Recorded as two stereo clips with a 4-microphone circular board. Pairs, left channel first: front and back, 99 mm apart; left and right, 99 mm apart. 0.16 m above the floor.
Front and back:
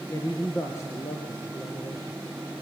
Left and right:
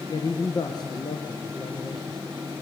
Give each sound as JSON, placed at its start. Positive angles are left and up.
{"t": 0.1, "sound": "a man speaking", "azimuth_deg": 55, "distance_m": 3.0}